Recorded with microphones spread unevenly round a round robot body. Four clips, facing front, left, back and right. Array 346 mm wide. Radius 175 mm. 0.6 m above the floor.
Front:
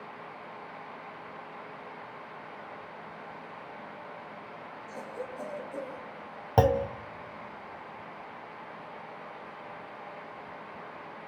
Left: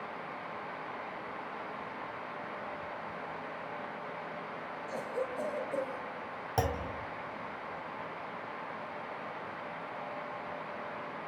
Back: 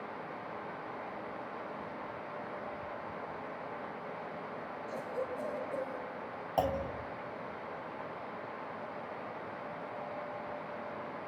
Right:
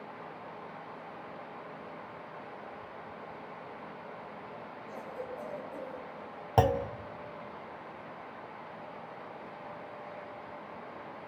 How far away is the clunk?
About 1.2 m.